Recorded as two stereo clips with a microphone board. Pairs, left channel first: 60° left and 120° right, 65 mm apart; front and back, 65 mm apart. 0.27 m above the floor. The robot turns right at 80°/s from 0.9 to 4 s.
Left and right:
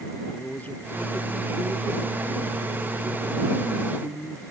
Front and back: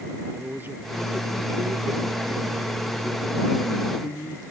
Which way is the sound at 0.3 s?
120° left.